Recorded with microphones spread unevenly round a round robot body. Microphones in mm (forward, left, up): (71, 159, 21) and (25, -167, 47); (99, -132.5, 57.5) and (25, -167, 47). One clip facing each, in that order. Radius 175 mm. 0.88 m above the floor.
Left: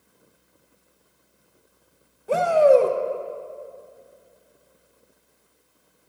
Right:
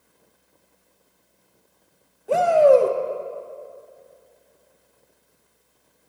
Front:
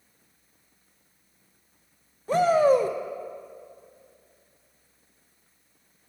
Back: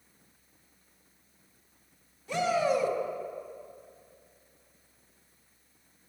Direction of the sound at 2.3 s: 5° left.